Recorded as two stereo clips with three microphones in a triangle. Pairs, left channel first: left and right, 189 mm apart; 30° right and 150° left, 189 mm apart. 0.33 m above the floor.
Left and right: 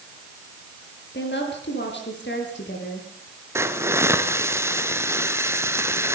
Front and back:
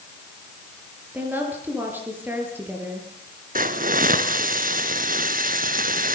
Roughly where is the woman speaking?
Left.